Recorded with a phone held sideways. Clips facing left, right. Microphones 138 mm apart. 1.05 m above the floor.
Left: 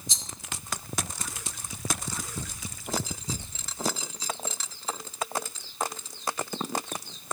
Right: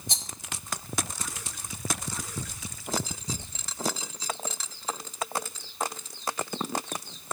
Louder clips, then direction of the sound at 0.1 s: Right 6 dB; 60° right (ahead or behind).